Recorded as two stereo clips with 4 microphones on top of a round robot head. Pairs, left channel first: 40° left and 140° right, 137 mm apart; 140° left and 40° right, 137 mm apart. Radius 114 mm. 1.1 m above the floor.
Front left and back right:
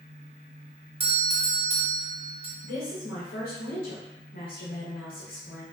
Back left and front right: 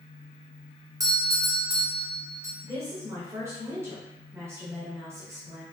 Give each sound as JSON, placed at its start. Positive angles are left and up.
{"t": 1.0, "sound": "a doorbell", "azimuth_deg": -105, "distance_m": 1.0}
{"t": 2.6, "sound": "a woman speaking", "azimuth_deg": 30, "distance_m": 1.0}